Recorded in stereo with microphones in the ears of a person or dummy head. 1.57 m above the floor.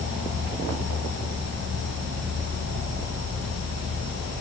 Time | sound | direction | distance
0.0 | an insect | 55° right (ahead or behind) | 1.2 m